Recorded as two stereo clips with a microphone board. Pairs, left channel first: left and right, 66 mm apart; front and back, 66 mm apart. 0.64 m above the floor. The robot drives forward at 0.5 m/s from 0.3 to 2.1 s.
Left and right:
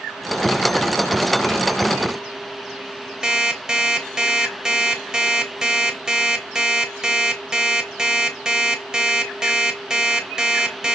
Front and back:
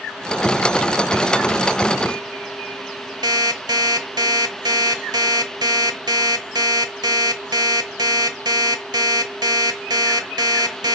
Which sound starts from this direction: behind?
An alarm clock, at 3.2 s.